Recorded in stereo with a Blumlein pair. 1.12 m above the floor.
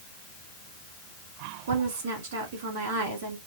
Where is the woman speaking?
55° right, 2 m.